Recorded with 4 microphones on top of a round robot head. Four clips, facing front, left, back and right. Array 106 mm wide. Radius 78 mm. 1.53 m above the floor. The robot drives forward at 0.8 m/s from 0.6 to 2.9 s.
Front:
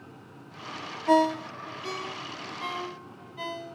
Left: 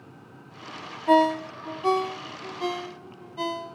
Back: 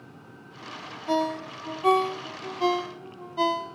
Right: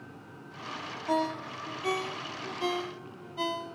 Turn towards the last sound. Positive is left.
turn(degrees=165)